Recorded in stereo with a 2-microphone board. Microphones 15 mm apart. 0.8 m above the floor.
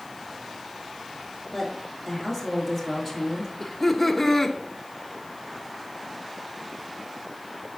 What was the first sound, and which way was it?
A woman speaking, centre (ahead or behind).